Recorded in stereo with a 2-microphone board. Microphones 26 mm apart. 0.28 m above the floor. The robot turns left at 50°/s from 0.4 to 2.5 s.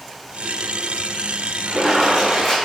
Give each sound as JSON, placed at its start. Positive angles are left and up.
{"t": 1.7, "sound": "a splash", "azimuth_deg": -140, "distance_m": 1.8}